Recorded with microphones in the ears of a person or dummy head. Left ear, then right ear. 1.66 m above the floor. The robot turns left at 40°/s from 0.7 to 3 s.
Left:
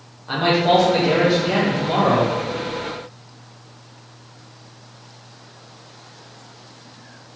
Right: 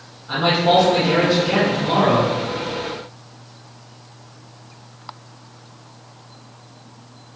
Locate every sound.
0.3 s a man speaking: 40° left, 0.9 m; by 2.3 s 25° right, 0.9 m